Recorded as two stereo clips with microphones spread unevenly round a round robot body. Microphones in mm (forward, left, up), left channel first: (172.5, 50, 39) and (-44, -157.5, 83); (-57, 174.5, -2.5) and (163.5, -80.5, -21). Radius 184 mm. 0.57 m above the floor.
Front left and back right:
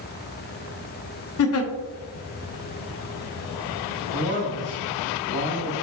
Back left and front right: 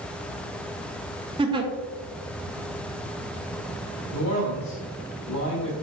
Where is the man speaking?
Straight behind, 1.6 m.